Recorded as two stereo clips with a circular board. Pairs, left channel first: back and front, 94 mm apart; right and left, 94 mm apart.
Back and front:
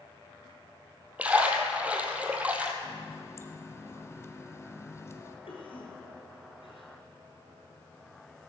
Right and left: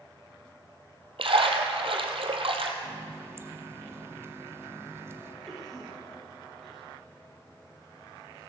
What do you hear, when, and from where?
1.2 s a splash: 75° left, 1.7 m
2.8 s a running tap: 135° left, 1.1 m
5.5 s a cough: straight behind, 4.5 m